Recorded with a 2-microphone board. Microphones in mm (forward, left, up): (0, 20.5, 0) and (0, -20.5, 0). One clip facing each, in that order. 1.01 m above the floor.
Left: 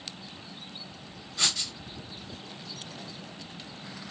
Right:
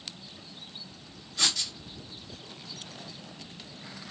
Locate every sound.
1.4 s writing: 5° left (ahead or behind), 2.5 m